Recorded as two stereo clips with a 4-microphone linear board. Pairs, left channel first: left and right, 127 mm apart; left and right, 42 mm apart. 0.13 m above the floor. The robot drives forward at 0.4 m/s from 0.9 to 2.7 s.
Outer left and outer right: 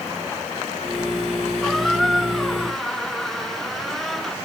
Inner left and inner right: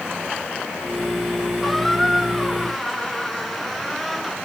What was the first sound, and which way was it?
A squeak, centre (ahead or behind).